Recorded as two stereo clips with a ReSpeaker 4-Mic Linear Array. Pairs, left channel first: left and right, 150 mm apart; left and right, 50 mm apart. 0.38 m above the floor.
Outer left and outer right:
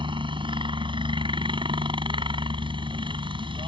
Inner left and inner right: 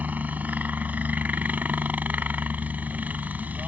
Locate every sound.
0.0 s a helicopter: 35° right (ahead or behind)